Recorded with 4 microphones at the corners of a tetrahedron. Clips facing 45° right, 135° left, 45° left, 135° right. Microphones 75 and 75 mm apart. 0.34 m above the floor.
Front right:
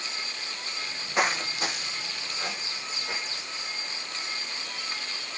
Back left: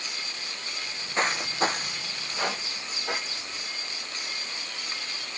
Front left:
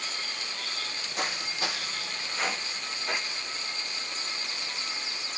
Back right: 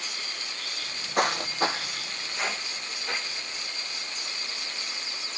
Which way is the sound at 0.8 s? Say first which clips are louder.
Front right 1 dB, back right 9 dB; 100° right.